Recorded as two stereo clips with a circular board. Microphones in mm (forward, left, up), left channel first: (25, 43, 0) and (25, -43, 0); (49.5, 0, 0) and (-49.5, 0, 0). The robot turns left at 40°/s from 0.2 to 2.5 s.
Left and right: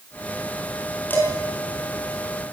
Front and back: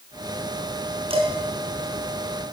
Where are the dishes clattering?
160° left, 5.5 m; by 1.3 s 150° left, 5.5 m.